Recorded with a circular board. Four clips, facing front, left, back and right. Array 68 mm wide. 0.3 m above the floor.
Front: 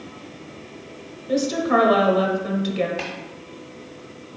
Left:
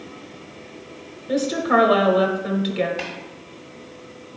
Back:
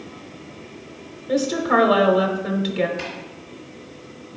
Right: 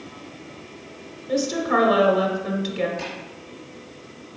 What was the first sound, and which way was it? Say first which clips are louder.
A woman speaking: left 2 dB, back 1 dB; 110° left.